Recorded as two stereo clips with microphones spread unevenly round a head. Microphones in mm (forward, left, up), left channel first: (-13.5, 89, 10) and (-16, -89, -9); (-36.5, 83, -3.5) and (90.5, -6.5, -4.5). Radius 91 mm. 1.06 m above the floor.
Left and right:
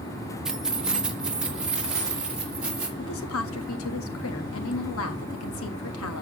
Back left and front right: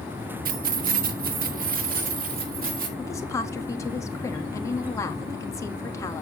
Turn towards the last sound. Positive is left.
turn(degrees=75)